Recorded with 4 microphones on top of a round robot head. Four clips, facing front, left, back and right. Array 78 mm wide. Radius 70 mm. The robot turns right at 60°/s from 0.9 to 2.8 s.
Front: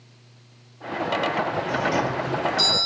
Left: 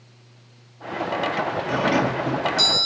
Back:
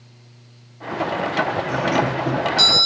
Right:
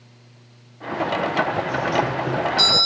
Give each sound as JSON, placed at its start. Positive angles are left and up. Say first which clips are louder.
{"t": 1.7, "sound": "a doorbell", "louder": "left 1 dB, back 3 dB", "azimuth_deg": 95, "distance_m": 3.0}